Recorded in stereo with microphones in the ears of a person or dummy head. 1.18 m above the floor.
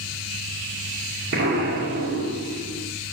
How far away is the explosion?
About 2 m.